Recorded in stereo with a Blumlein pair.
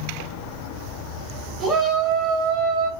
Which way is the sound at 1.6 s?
10° right.